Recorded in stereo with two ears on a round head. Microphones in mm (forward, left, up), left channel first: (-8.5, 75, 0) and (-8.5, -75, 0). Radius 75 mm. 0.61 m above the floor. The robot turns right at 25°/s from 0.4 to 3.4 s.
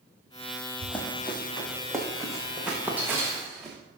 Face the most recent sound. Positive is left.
turn(degrees=-15)  # may be behind; listen again after turning